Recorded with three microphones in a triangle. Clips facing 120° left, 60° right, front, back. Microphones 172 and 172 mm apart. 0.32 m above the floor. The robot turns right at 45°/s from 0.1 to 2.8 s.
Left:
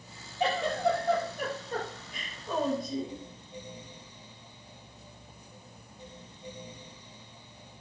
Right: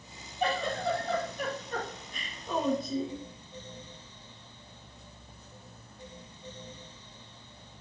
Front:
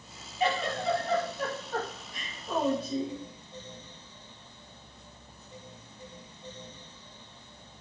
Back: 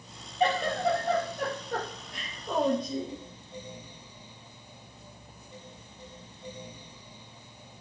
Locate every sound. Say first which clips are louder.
0.4 s a giggle: left 3 dB, back 3 dB; 125° left, 5.5 m; by 3.2 s 130° right, 5.5 m